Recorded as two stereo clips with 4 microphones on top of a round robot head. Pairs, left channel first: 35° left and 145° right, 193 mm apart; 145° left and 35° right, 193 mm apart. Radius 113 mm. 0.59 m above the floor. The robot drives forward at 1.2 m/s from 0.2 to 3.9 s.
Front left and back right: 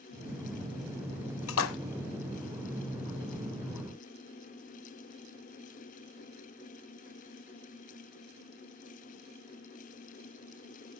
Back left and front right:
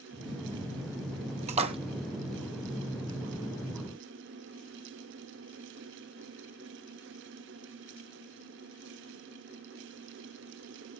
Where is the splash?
25° left, 1.6 m; by 1.8 s 30° left, 1.3 m.